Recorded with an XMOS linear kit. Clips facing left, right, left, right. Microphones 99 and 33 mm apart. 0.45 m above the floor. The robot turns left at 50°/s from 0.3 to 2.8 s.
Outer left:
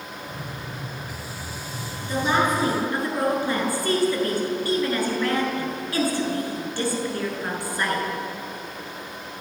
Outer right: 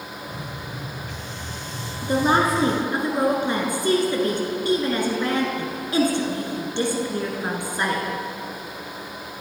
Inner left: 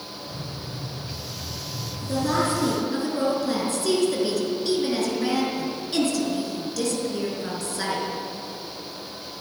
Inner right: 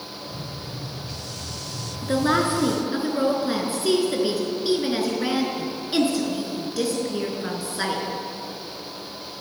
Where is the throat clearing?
I don't hear throat clearing.